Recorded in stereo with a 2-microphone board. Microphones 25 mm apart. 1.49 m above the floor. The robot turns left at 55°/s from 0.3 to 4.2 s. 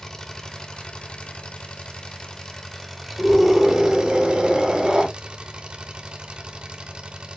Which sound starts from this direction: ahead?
A scream, at 3.2 s.